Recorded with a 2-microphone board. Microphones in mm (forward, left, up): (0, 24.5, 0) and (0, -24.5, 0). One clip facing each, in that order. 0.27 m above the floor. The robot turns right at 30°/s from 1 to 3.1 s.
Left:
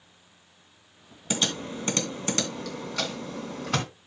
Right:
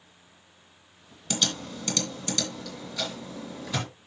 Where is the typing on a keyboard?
20° left (ahead or behind), 2.5 m; by 3.9 s 60° left (ahead or behind), 2.5 m.